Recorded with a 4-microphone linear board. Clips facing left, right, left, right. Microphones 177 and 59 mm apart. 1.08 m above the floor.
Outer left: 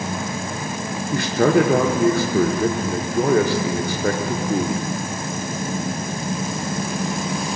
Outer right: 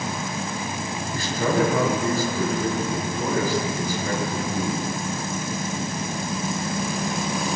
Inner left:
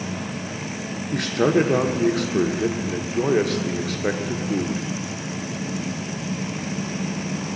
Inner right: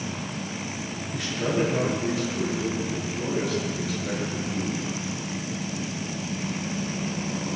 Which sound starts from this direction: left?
A man speaking, at 1.1 s.